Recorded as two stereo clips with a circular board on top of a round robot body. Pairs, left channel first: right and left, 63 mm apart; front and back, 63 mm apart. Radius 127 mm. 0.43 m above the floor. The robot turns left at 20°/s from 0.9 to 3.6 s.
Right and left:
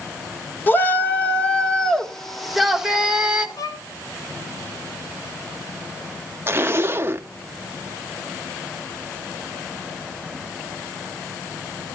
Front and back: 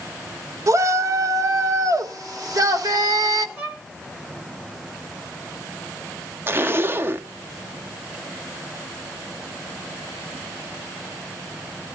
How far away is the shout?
About 1.7 m.